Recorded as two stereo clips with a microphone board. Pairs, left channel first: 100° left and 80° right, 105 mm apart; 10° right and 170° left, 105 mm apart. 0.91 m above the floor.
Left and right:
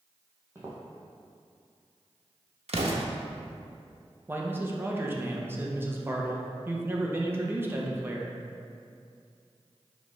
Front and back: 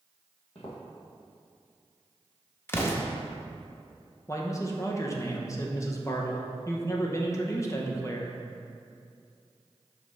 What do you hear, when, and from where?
0.6 s footsteps: 15° right, 1.9 m
2.7 s an explosion: 80° right, 0.7 m
4.3 s a man speaking: 35° right, 0.7 m